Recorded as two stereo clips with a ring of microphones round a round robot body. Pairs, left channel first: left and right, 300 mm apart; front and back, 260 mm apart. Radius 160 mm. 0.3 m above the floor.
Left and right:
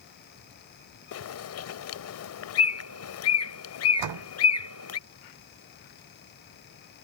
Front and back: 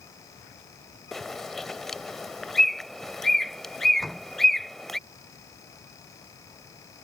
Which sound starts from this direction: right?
A door slam, at 4.0 s.